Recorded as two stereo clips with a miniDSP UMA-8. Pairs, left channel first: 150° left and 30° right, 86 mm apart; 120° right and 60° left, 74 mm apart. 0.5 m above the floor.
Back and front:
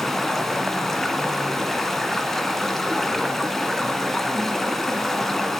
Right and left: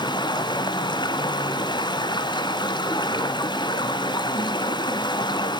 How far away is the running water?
About 1.7 m.